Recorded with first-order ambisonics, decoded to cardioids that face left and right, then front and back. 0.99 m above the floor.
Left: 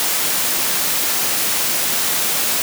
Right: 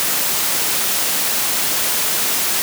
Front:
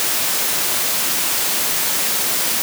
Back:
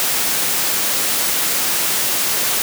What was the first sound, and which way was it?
Only background noise.